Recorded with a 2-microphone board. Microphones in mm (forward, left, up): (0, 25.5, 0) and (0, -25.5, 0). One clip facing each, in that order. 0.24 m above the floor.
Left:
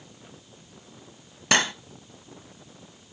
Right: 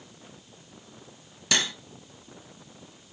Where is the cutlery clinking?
45° left (ahead or behind), 0.7 m.